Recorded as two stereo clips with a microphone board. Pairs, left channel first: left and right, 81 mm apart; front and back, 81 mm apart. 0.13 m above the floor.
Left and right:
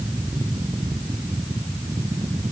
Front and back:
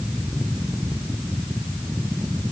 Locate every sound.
Only background noise.